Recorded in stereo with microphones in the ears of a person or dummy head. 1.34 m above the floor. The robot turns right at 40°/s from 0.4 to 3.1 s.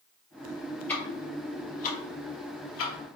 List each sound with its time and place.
0.9 s ticking: 5° left (ahead or behind), 1.2 m; by 2.9 s 75° left (ahead or behind), 1.2 m